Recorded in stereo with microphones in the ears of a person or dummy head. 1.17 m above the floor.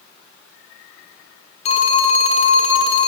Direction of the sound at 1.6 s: 35° left (ahead or behind).